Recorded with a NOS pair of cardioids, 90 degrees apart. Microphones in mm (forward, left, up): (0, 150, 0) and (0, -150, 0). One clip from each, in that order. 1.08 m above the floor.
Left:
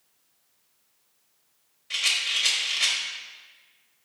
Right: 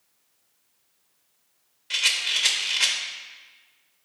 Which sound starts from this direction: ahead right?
A rattle, at 1.9 s.